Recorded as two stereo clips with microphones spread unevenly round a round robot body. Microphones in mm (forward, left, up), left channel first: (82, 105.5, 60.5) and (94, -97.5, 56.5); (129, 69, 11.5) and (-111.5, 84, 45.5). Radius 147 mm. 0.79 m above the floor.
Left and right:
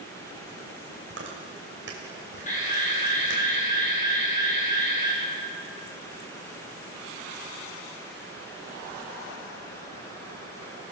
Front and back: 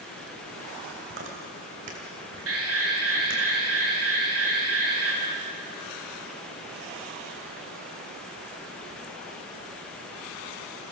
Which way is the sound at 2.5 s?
150° left.